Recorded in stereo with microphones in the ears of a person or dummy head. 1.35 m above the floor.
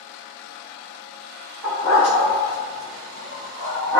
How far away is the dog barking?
About 1.2 m.